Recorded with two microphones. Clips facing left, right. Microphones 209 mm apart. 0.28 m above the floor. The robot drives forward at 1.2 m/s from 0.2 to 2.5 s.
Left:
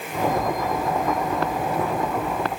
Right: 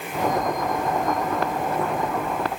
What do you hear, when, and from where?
Only background noise.